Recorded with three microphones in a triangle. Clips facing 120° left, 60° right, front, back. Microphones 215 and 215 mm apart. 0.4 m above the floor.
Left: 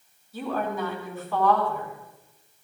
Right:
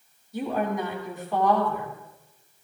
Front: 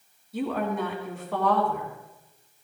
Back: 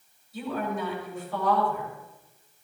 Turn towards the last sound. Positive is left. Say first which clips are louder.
# right 2 dB, front 3 dB
turn(degrees=10)